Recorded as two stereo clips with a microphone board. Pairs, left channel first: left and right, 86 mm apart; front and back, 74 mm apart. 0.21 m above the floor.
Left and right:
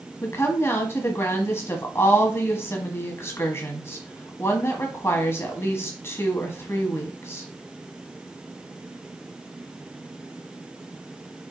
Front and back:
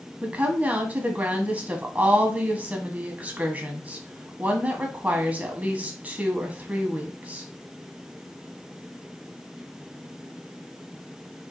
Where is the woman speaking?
125° left, 1.3 m.